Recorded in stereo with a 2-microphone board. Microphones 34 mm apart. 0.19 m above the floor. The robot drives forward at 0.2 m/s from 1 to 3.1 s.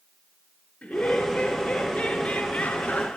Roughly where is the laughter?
Left.